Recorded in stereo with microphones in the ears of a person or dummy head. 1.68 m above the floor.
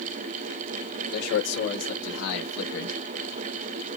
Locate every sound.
1.1 s a man speaking: 65° left (ahead or behind), 2 m; by 3.0 s 85° left, 1.6 m